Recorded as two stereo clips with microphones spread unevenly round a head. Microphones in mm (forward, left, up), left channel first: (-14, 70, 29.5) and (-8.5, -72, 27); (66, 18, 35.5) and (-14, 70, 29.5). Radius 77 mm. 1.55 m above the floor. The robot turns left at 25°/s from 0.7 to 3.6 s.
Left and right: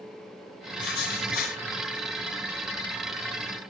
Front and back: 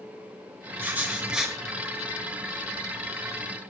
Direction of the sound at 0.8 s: 80° left.